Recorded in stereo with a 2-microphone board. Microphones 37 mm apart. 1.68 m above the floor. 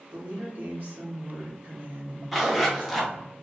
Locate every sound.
0.1 s a woman speaking: 65° right (ahead or behind), 1.9 m
2.3 s a zipper: 5° right (ahead or behind), 1.1 m